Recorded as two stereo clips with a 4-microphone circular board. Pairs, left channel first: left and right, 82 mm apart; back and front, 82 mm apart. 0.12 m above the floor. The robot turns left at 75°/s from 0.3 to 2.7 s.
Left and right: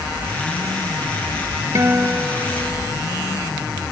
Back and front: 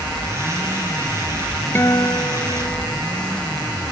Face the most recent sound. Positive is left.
turn(degrees=160)